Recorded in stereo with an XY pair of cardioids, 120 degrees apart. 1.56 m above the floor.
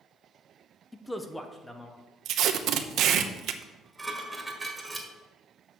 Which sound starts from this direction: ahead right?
Tape being pulled, at 2.2 s.